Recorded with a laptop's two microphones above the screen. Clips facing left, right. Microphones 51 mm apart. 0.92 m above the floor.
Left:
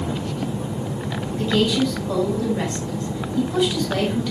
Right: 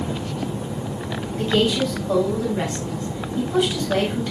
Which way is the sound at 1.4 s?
20° right (ahead or behind).